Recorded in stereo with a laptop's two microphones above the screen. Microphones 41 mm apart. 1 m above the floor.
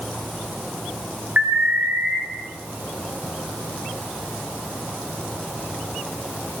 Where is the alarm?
60° right (ahead or behind), 4 m.